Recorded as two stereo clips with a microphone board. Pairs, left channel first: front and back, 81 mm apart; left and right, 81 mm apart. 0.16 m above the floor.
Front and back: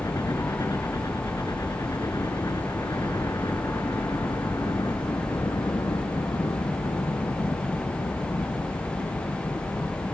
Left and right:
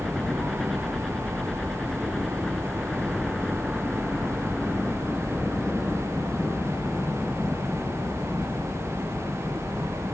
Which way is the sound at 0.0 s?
5° left.